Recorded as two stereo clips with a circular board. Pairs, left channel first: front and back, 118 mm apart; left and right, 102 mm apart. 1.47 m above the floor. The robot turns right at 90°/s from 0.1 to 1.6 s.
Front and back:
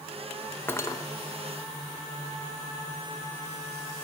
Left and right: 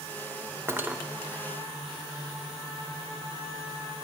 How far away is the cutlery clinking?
About 0.7 m.